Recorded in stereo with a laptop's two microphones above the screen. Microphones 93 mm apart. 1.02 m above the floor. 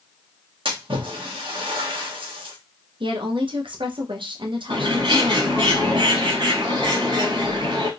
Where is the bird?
60° right (ahead or behind), 1.5 m.